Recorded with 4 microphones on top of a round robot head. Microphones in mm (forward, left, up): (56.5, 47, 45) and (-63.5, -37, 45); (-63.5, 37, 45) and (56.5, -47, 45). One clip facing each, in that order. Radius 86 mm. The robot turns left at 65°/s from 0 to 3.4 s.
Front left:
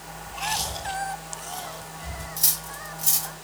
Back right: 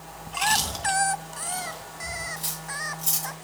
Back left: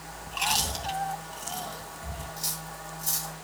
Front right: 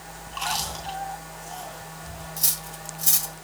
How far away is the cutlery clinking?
About 1.4 m.